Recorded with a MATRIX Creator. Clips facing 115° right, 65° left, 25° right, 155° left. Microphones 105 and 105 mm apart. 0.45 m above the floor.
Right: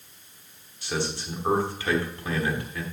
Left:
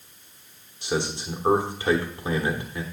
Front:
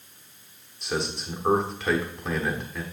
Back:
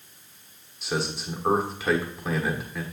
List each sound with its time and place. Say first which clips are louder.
0.8 s a man speaking: left 3 dB, even; 75° left, 1.0 m